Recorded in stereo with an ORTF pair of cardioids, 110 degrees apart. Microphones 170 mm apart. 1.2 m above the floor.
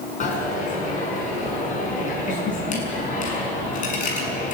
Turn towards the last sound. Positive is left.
turn(degrees=50)